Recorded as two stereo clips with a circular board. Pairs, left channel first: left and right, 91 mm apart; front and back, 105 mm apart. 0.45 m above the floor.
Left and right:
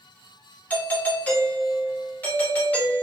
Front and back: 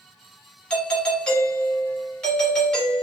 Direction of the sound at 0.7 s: 60° left.